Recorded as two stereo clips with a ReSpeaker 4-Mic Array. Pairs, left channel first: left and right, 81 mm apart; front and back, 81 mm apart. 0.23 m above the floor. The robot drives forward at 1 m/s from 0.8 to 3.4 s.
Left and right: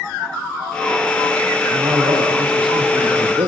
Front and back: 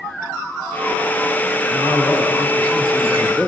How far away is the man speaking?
About 6.5 m.